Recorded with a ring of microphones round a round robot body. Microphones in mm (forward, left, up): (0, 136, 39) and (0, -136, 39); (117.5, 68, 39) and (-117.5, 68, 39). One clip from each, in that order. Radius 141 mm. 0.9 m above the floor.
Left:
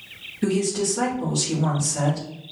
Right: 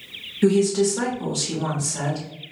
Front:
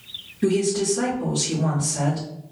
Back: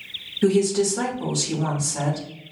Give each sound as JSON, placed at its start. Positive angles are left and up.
{"t": 0.4, "sound": "a woman speaking", "azimuth_deg": -155, "distance_m": 1.2}